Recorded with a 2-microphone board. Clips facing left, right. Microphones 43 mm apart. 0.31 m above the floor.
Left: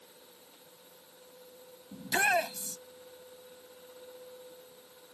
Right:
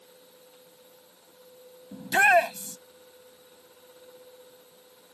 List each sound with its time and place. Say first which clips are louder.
1.9 s a shout: right 8 dB; 40° right (ahead or behind)